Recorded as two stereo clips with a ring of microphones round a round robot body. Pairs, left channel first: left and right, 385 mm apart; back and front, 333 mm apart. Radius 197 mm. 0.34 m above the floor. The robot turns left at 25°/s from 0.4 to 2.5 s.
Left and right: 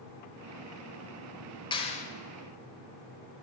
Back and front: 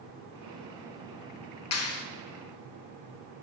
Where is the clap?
165° left, 1.1 m; by 2.0 s 155° left, 1.1 m.